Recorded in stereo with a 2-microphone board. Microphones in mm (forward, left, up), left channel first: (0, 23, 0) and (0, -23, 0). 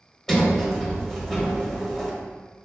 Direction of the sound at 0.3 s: 5° left (ahead or behind).